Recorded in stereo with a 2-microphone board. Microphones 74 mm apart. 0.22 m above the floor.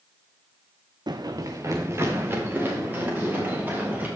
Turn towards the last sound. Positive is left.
turn(degrees=-25)  # may be behind; listen again after turning